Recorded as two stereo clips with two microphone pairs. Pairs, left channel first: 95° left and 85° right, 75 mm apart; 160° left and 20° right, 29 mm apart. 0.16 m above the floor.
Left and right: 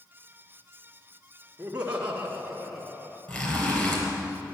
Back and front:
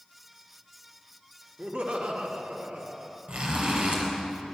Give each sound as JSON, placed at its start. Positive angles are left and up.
{"t": 1.6, "sound": "laughter", "azimuth_deg": -20, "distance_m": 1.8}
{"t": 3.3, "sound": "a zipper", "azimuth_deg": 25, "distance_m": 3.5}